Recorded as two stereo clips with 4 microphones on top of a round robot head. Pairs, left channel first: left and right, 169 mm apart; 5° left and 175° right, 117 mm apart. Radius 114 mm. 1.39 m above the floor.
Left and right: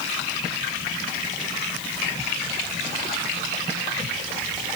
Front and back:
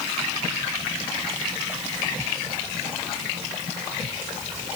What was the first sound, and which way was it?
Only background noise.